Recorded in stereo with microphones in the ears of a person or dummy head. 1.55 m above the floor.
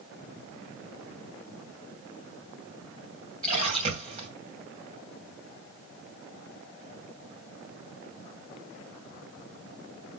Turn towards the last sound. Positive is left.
turn(degrees=-40)  # may be behind; listen again after turning